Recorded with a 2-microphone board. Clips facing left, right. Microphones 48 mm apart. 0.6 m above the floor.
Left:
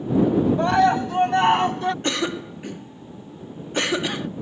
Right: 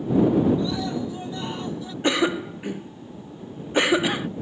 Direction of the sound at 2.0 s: 15° right (ahead or behind).